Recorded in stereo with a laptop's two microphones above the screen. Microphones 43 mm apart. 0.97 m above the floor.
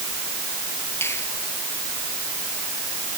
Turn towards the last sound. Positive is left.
turn(degrees=80)